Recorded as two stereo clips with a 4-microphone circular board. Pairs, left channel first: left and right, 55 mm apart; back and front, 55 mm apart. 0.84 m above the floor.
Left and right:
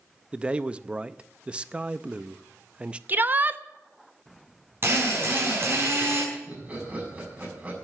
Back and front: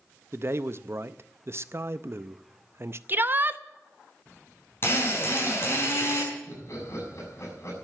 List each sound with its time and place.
0.3 s a man speaking: 20° right, 0.5 m
3.1 s a shout: 40° right, 0.8 m
4.8 s a drill: 135° right, 6 m
6.3 s laughter: 150° right, 7 m